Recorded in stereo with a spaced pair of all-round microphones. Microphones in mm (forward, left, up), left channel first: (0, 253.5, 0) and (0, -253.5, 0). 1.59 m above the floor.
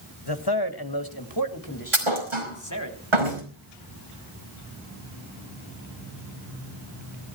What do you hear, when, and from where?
0.3 s a man speaking: 50° left (ahead or behind), 1.8 m; by 2.9 s 35° left (ahead or behind), 3 m
1.9 s a thud: 70° right (ahead or behind), 5.5 m